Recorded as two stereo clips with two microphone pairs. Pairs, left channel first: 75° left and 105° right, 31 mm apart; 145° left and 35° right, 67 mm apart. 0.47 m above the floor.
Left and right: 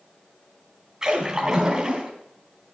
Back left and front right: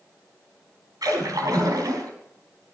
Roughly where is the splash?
Ahead right.